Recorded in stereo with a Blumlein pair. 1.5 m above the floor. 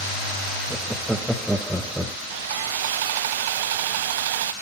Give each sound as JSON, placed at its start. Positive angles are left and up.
{"t": 0.7, "sound": "laughter", "azimuth_deg": -5, "distance_m": 1.6}
{"t": 2.3, "sound": "sawing", "azimuth_deg": -55, "distance_m": 0.5}